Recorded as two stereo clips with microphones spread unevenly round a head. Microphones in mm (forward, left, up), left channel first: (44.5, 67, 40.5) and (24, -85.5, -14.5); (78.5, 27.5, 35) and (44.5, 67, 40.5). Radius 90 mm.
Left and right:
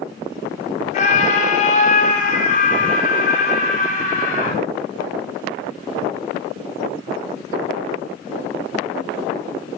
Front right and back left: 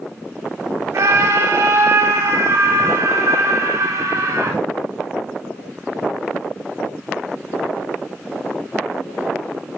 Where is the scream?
120° left, 1.1 m; by 4.6 s 130° left, 3.5 m.